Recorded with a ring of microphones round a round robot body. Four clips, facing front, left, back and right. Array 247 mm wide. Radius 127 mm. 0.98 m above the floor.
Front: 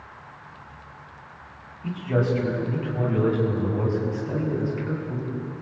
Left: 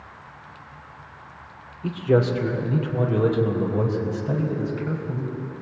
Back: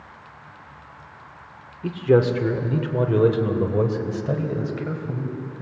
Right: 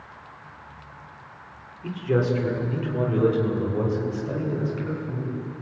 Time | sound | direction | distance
1.8 | a man speaking | 170° left | 2.5 m